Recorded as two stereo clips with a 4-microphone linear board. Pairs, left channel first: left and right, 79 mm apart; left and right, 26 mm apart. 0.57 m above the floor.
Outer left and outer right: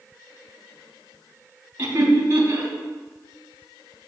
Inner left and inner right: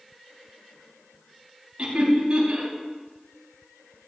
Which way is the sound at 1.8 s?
30° right (ahead or behind).